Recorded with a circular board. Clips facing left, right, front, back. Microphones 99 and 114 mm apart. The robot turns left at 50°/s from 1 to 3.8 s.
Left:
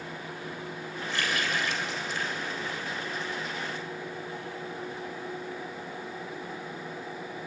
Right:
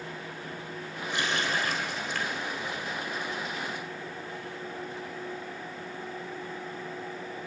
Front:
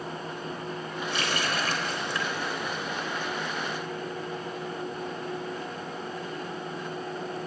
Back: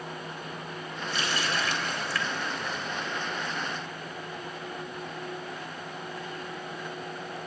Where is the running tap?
15° right, 2.5 m; by 2.9 s 105° right, 2.5 m.